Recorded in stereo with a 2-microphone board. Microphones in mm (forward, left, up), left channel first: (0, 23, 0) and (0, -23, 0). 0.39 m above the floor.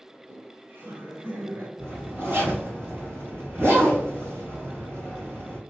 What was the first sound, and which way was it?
Laughter, 50° right (ahead or behind).